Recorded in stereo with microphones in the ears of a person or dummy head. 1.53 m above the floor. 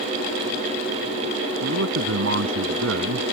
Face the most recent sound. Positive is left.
turn(degrees=-85)